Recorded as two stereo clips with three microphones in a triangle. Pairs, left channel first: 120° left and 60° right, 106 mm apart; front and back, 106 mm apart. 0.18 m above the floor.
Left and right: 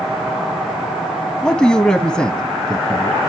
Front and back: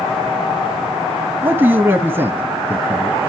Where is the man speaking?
175° right, 1.0 m.